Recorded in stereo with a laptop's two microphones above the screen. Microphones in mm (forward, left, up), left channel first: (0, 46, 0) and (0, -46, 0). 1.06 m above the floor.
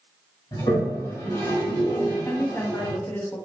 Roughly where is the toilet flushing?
Left.